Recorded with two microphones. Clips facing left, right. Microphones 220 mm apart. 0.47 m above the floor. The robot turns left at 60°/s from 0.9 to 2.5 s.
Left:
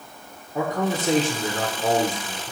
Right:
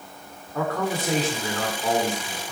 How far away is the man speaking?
About 1.5 m.